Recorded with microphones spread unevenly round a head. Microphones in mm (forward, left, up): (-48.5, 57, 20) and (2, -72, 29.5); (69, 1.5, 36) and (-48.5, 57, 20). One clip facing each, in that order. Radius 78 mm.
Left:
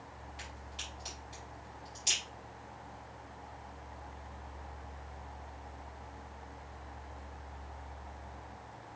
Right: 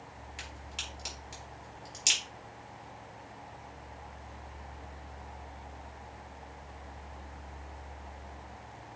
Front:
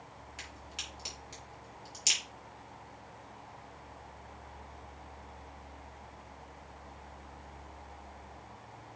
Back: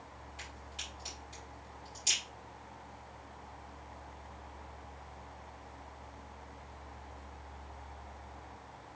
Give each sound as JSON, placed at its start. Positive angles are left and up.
{"t": 0.4, "sound": "a crack", "azimuth_deg": -45, "distance_m": 5.5}